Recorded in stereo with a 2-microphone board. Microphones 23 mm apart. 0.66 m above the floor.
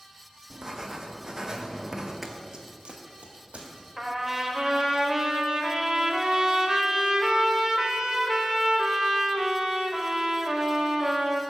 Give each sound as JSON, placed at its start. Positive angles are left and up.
{"t": 0.5, "sound": "writing", "side_deg": -30, "distance_m": 0.6}
{"t": 2.2, "sound": "running footsteps", "side_deg": -5, "distance_m": 0.7}
{"t": 4.0, "sound": "a trumpet", "side_deg": -20, "distance_m": 0.7}